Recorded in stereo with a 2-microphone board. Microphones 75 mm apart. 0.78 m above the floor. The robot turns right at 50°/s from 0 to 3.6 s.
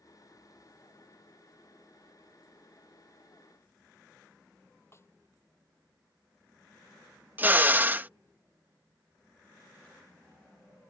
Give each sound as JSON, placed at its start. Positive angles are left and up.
{"t": 4.9, "sound": "a snare drum", "side_deg": 35}
{"t": 7.4, "sound": "a drill", "side_deg": -25}